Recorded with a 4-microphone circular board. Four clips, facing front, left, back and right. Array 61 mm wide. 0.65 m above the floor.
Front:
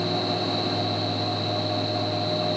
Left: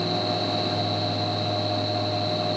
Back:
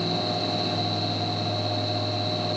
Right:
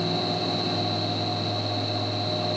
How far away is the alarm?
I don't hear an alarm.